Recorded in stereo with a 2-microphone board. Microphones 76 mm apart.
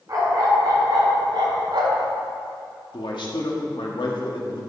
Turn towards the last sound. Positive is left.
turn(degrees=75)  # may be behind; listen again after turning